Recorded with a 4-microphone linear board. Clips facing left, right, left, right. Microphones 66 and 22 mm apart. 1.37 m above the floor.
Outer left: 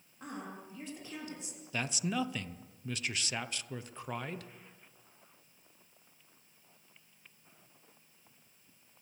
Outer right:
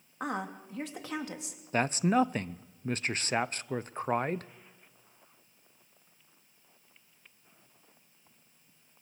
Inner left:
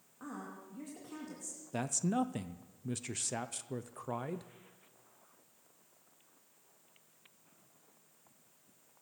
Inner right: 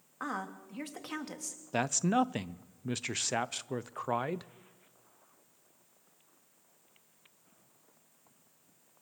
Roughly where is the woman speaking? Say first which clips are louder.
Outer right 8 dB, inner right 8 dB; right.